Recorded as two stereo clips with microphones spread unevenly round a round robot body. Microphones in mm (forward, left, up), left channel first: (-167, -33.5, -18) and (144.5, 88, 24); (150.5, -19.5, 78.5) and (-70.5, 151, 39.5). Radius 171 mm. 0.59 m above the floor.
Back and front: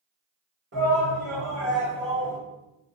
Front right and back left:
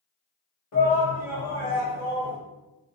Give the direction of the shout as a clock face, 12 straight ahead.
1 o'clock.